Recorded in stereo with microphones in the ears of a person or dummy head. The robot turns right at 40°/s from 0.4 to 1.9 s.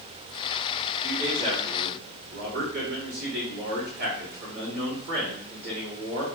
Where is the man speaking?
165° right, 2 m; by 6.2 s 130° right, 2 m.